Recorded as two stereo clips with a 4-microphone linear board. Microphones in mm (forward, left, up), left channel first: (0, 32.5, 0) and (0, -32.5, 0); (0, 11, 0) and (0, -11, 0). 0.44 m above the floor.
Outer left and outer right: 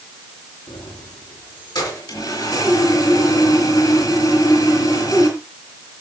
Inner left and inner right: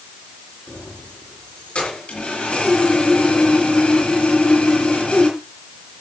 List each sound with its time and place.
0.7 s keys jangling: 80° left, 5 m
2.1 s sawing: 70° left (ahead or behind), 5.5 m